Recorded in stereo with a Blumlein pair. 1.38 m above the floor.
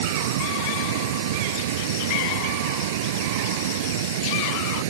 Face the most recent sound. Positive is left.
turn(degrees=-55)